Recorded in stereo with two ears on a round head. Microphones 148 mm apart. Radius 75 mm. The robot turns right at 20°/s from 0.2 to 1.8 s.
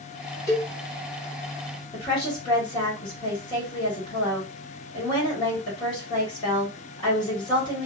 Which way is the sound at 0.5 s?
15° left (ahead or behind).